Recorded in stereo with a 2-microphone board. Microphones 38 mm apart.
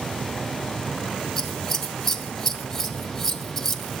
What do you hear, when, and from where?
1.4 s scissors: 10° left (ahead or behind), 1.4 m